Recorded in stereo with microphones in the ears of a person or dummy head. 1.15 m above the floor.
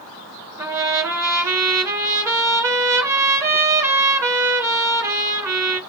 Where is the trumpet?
15° right (ahead or behind), 0.6 m.